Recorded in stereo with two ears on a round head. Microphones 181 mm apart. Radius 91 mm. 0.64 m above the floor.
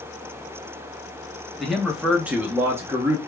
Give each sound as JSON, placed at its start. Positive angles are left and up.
{"t": 1.6, "sound": "a man speaking", "side_deg": 0, "distance_m": 0.9}